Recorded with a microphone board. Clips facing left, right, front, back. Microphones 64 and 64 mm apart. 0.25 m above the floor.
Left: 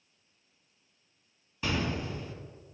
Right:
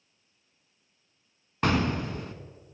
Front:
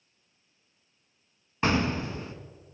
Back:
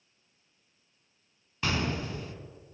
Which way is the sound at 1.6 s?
55° right.